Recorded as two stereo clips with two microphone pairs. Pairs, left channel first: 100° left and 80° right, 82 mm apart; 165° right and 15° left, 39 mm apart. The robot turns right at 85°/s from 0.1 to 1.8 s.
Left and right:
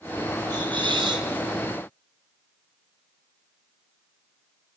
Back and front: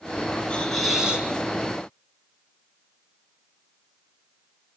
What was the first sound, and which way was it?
A hiss, 110° right.